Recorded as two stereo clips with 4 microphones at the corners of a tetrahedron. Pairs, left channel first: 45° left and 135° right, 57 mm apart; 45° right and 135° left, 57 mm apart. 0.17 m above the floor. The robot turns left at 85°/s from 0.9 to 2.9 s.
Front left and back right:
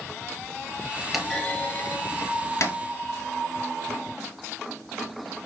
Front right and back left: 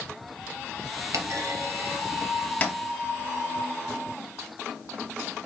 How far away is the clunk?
About 0.9 m.